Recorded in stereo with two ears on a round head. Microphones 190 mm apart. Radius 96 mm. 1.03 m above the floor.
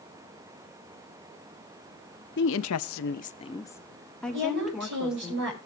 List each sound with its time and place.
2.4 s a woman speaking: 55° left (ahead or behind), 1.0 m; by 5.3 s 5° right (ahead or behind), 3.5 m
4.3 s a woman speaking: 60° right (ahead or behind), 6 m